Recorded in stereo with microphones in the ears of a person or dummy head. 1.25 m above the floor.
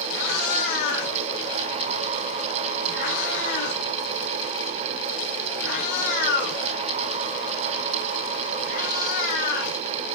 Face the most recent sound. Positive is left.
turn(degrees=65)  # may be behind; listen again after turning